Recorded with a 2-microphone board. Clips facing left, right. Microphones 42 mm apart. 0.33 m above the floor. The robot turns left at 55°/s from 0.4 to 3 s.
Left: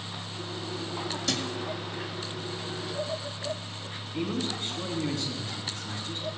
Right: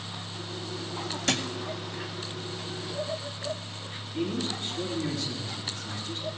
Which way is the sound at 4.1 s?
60° left (ahead or behind).